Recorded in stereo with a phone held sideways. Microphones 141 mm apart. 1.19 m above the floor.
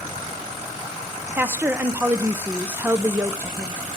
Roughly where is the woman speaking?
Centre.